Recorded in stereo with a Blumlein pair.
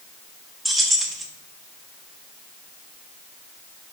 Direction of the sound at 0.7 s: 5° right.